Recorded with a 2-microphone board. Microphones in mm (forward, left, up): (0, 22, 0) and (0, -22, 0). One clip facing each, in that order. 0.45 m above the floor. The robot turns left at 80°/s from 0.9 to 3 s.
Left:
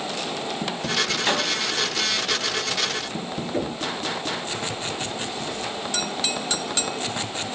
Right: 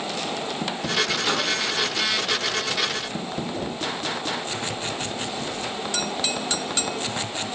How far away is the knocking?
About 8 m.